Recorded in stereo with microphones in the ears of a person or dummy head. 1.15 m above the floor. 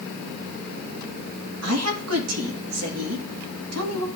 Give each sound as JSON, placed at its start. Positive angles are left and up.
{"t": 1.6, "sound": "a woman speaking", "side_deg": -80, "distance_m": 2.0}